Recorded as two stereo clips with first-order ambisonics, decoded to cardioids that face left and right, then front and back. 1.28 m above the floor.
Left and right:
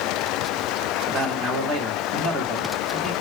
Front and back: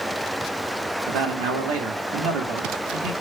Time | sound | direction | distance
1.1 | a man speaking | 160° right | 2 m